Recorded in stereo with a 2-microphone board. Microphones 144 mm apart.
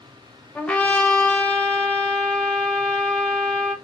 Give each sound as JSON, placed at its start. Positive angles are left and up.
{"t": 0.6, "sound": "a trumpet", "side_deg": 10, "distance_m": 0.6}